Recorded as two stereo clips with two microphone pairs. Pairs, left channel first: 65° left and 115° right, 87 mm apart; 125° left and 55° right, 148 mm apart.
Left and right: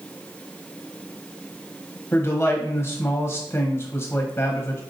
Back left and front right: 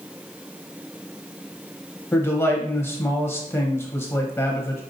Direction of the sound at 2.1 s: 75° left.